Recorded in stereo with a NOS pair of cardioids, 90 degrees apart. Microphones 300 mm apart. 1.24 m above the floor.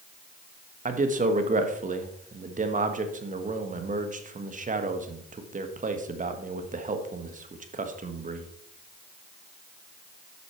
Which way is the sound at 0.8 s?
25° right.